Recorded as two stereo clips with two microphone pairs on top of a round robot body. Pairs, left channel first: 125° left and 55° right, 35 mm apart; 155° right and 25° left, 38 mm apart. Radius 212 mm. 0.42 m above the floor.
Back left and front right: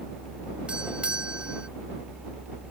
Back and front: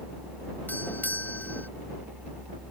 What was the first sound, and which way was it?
A doorbell, 115° right.